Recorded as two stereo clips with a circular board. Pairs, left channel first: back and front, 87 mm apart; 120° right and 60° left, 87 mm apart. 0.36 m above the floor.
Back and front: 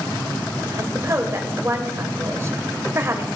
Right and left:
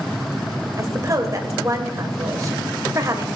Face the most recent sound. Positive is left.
turn(degrees=35)